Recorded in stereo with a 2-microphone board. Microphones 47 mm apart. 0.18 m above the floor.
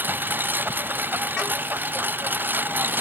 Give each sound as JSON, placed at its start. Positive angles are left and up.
{"t": 0.0, "sound": "a lawn mower", "side_deg": -45}